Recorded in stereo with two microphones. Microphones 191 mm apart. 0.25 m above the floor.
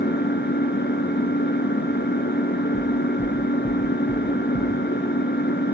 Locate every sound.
0.0 s an engine running: 65° left (ahead or behind), 1.3 m
2.7 s knocking: 75° left (ahead or behind), 5.5 m